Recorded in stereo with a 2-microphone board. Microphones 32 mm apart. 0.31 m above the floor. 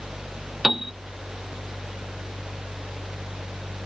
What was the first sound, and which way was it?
A piano, 5° right (ahead or behind).